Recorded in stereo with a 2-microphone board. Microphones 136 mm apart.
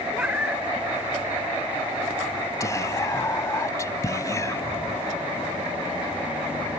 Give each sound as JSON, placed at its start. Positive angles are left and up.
{"t": 0.1, "sound": "a cat meowing", "side_deg": -10}
{"t": 2.6, "sound": "whispering", "side_deg": 25}